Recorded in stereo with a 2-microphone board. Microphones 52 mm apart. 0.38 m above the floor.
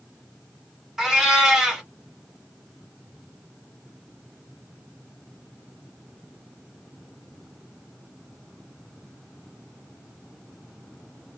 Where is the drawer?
No drawer in this recording.